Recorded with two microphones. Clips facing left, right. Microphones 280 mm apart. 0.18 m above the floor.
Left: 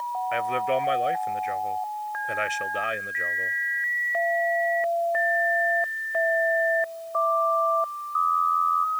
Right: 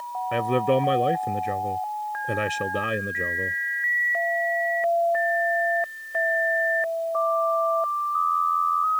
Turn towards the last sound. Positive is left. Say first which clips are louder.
# right 6 dB
turn(degrees=-50)  # may be behind; listen again after turning